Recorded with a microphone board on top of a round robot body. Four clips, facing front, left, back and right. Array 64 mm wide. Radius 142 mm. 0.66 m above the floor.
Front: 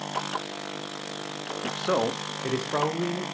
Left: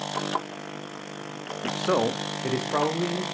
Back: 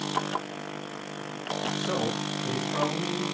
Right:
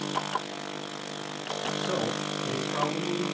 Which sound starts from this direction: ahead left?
A man speaking, at 1.6 s.